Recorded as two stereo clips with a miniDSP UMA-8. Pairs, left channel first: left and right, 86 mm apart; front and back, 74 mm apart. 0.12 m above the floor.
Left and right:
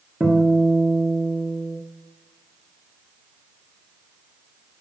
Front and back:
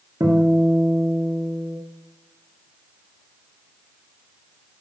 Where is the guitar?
160° right, 2 m.